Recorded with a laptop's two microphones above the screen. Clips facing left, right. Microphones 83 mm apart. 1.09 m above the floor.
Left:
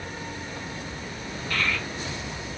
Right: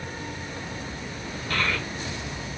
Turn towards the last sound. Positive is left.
turn(degrees=-60)  # may be behind; listen again after turning